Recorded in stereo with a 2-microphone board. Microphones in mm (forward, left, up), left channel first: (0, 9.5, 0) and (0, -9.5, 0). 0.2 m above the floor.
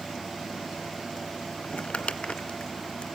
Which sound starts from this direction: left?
Crumpling, at 1.6 s.